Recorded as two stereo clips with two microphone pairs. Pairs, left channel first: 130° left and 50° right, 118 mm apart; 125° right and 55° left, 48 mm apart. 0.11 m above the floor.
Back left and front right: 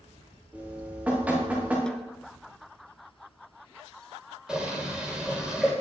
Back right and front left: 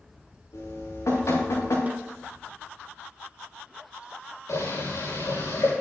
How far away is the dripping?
About 5.5 m.